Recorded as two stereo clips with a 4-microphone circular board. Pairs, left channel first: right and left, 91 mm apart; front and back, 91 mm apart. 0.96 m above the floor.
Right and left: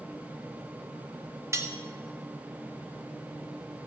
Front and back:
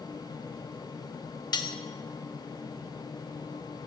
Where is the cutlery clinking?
35° left, 0.5 m.